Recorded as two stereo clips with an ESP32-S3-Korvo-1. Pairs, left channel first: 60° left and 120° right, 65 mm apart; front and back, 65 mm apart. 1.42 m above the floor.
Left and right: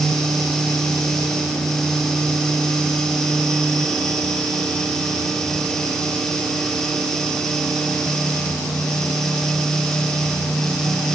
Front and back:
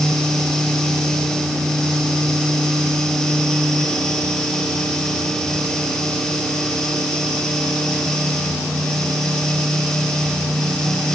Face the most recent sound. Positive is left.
No sound to turn to.